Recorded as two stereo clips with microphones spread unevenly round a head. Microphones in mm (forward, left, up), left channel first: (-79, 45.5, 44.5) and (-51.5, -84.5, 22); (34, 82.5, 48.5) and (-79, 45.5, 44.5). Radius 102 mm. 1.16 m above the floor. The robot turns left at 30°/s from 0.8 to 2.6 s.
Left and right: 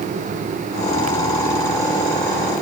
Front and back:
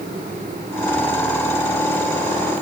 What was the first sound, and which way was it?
Only background noise.